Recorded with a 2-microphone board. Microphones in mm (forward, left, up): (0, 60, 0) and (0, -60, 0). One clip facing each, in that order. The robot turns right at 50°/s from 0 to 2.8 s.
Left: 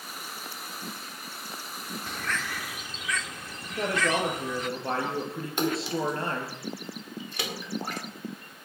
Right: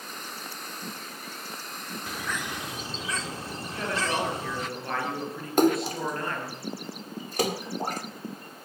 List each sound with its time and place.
2.1 s a bird: 175° right, 0.9 m; by 4.7 s 140° right, 0.9 m
3.7 s a man speaking: 30° left (ahead or behind), 8.5 m
5.6 s a splash: 45° right (ahead or behind), 1.7 m